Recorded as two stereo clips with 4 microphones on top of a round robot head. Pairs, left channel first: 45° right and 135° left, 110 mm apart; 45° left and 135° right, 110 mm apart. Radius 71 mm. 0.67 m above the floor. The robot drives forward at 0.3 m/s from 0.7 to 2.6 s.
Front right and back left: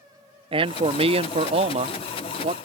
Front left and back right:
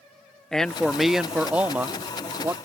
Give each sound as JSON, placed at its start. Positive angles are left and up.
{"t": 0.5, "sound": "a man speaking", "azimuth_deg": 130}